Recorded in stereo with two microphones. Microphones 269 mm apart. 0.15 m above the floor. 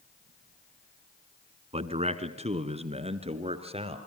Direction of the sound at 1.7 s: 25° right (ahead or behind).